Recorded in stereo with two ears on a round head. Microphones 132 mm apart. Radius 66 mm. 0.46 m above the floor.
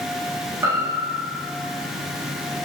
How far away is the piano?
About 1.0 m.